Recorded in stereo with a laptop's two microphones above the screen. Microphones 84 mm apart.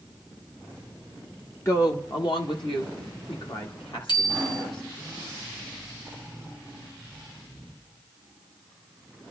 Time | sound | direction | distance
1.6 | a woman speaking | 30° left (ahead or behind) | 0.7 m
4.1 | a bicycle bell | 60° left (ahead or behind) | 3 m